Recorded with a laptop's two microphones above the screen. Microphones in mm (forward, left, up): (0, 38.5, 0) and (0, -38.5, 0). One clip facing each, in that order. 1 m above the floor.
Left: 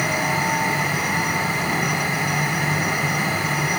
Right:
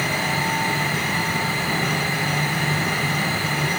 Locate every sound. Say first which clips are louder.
0.0 s a fan: left 2 dB; 10° left (ahead or behind), 4.5 m